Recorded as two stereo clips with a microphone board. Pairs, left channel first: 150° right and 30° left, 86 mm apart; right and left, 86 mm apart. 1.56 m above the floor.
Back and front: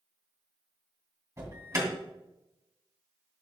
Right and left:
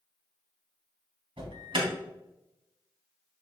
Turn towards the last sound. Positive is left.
turn(degrees=80)